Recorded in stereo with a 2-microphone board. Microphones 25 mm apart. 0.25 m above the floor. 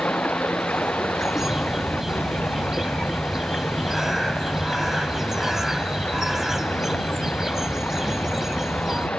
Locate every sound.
0.0 s running water: 85° left
1.1 s a bird: 20° right (ahead or behind)